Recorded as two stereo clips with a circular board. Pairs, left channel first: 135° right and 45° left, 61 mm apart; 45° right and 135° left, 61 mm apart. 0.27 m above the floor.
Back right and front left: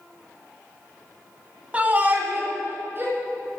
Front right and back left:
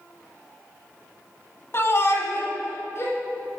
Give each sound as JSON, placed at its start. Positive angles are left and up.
{"t": 1.7, "sound": "a shout", "azimuth_deg": -15, "distance_m": 1.5}